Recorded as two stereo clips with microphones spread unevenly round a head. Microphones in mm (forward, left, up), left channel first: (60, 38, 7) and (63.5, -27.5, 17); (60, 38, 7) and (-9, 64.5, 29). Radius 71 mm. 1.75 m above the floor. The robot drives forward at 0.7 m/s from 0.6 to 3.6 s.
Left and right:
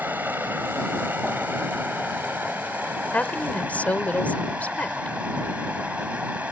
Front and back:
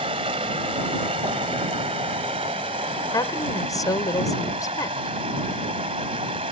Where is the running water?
165° right; by 6.5 s 170° right.